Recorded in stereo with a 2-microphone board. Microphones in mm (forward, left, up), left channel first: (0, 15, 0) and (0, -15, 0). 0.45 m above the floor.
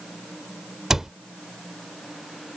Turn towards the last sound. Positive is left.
turn(degrees=-15)  # may be behind; listen again after turning